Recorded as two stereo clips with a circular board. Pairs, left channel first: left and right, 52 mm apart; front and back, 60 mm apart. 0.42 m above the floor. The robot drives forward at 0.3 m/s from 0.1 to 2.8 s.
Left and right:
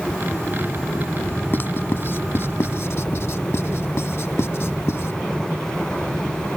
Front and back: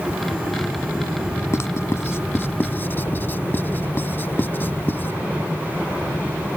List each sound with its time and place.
1.5 s writing: 40° left; by 5.1 s 55° left